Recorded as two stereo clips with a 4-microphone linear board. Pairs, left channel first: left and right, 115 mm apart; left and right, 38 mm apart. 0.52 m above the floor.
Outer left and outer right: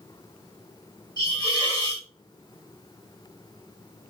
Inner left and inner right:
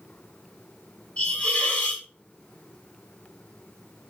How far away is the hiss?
About 2.0 m.